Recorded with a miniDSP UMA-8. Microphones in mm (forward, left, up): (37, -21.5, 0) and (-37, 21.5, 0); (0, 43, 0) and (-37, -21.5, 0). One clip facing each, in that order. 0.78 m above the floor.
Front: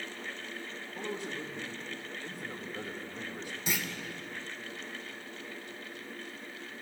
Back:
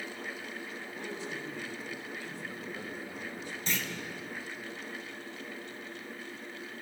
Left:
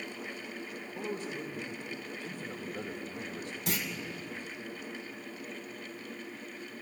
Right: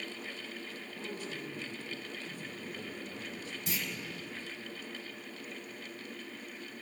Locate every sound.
0.9 s a man speaking: 35° left, 3.5 m
3.7 s a clunk: 50° left, 3 m